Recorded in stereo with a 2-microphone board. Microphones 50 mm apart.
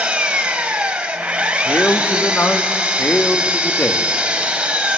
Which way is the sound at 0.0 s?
25° right (ahead or behind).